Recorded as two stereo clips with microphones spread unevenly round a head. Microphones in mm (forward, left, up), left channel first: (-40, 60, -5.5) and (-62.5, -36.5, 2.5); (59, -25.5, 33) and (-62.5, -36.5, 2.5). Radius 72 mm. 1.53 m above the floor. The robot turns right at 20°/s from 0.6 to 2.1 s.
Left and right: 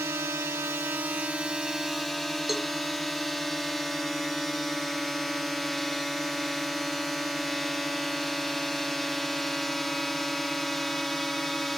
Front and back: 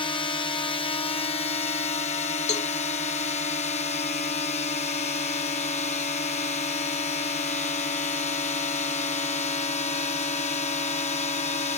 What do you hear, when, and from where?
0.0 s a drone: 40° right; by 11.8 s 10° right
2.5 s a cowbell: 15° right